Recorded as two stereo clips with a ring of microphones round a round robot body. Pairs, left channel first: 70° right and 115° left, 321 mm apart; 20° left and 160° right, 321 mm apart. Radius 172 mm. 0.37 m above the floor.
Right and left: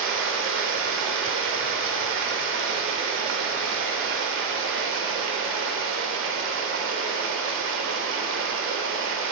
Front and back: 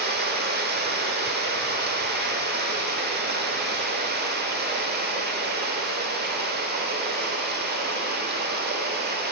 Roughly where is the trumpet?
I don't hear a trumpet.